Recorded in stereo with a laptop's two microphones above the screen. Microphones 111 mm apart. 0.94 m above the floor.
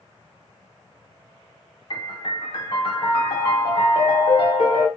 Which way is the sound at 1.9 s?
45° left (ahead or behind).